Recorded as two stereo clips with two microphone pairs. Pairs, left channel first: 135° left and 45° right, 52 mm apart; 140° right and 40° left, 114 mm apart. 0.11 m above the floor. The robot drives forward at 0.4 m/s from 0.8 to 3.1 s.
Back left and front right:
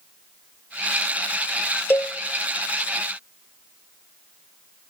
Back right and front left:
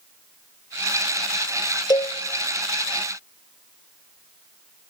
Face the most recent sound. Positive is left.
turn(degrees=175)